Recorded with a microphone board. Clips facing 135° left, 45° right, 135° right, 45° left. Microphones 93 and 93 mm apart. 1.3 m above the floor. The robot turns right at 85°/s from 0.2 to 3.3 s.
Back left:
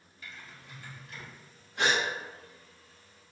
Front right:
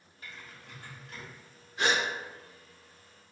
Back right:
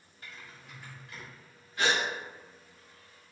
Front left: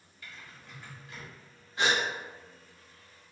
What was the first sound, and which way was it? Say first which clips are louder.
Typing on a keyboard: even, even; 90° right.